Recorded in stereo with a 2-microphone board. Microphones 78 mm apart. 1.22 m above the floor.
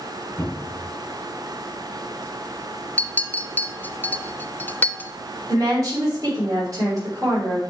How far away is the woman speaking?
About 3.5 m.